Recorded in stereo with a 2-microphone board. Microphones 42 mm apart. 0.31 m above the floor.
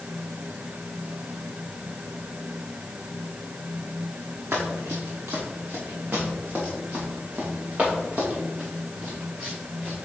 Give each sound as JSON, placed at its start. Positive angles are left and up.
{"t": 4.5, "sound": "running footsteps", "side_deg": -80, "distance_m": 2.0}